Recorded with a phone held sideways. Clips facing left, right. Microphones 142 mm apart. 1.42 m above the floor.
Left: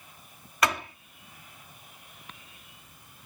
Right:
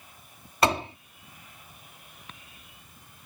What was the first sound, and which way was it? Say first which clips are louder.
A door slam: right 4 dB; 30° right (ahead or behind).